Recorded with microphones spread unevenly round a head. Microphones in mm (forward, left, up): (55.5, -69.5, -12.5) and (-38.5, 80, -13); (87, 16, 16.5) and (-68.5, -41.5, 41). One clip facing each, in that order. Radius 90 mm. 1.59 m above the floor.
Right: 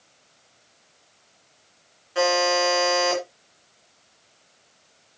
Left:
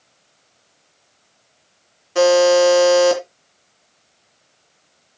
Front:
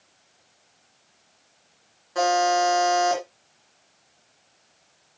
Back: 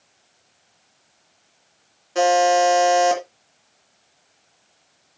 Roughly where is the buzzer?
Behind left.